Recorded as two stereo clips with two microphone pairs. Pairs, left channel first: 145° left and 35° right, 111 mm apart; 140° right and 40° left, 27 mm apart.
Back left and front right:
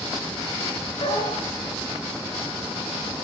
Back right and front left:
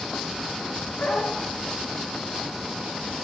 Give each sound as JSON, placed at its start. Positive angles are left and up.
{"t": 1.0, "sound": "a dog barking", "azimuth_deg": 180, "distance_m": 9.0}